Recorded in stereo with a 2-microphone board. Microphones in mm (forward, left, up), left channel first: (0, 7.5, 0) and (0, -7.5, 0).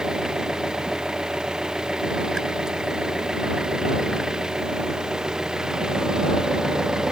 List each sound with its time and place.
0.0 s an engine running: 50° right (ahead or behind)